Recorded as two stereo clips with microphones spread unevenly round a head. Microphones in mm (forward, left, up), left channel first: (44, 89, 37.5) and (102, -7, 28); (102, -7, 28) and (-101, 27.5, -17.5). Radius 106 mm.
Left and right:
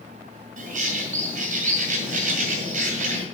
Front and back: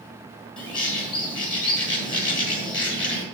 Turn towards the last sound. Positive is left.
turn(degrees=-75)